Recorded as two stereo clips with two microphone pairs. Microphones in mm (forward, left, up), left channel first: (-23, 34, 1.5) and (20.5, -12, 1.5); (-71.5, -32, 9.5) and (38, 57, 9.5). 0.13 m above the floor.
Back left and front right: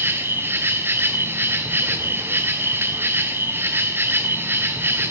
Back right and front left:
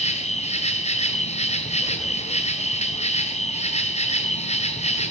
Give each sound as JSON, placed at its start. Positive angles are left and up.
{"t": 0.0, "sound": "an insect", "azimuth_deg": -100, "distance_m": 1.8}